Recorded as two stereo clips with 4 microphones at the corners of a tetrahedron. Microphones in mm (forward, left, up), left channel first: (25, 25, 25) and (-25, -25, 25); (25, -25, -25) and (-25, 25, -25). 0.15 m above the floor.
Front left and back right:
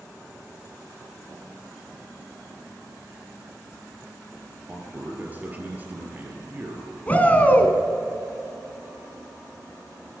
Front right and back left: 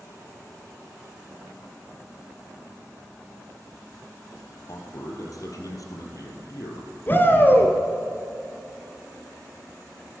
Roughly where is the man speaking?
Right.